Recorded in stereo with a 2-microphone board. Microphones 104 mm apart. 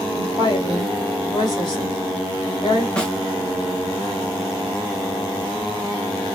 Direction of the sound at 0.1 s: 45° left (ahead or behind).